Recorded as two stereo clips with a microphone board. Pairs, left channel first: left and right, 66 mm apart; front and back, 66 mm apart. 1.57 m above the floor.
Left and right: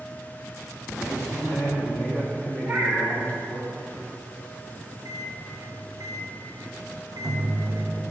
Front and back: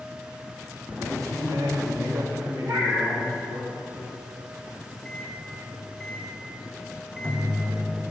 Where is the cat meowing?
160° right, 2.5 m.